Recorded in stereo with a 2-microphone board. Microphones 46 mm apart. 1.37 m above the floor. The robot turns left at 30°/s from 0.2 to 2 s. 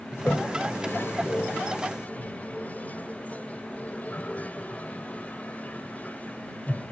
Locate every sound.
0.1 s a toilet flushing: 50° left (ahead or behind); by 6.9 s 40° left (ahead or behind)